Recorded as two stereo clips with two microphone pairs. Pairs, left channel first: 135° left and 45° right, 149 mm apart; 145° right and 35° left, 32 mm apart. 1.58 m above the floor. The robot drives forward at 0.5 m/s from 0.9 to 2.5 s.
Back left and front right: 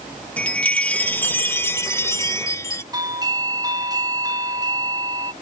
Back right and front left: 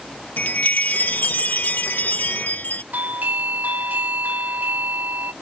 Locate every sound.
0.4 s a chime: 145° right; by 2.8 s 160° right
2.9 s a doorbell: 20° left